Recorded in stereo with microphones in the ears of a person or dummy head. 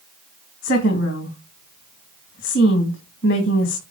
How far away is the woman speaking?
About 2.5 m.